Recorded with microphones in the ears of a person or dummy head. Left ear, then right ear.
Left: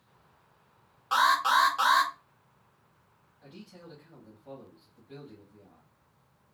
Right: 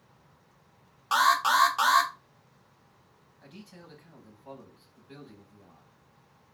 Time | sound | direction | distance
1.1 | an alarm | 20° right (ahead or behind) | 0.5 m
3.4 | a man speaking | 25° right (ahead or behind) | 0.8 m